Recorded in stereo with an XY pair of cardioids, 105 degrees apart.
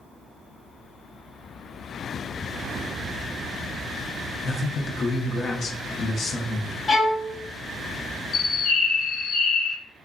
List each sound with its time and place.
4.4 s a man speaking: 50° left, 0.7 m
6.9 s a violin: 40° left, 1.1 m
8.3 s a bird: 65° left, 1.1 m